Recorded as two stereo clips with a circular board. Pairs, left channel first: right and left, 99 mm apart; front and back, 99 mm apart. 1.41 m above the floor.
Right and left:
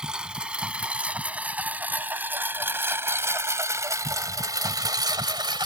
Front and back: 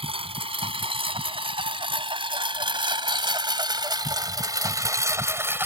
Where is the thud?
No thud in this recording.